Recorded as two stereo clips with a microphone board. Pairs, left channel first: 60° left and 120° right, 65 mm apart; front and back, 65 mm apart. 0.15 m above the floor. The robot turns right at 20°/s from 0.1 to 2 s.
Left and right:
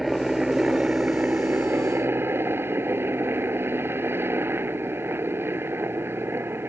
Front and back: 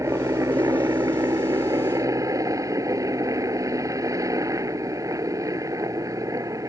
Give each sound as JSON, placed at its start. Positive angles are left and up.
{"t": 0.0, "sound": "a helicopter", "azimuth_deg": 155}